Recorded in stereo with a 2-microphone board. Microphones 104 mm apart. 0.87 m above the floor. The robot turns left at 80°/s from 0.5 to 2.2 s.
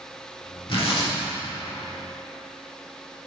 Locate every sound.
0.7 s tearing paper: 115° left, 2.5 m; by 1.1 s 80° left, 2.5 m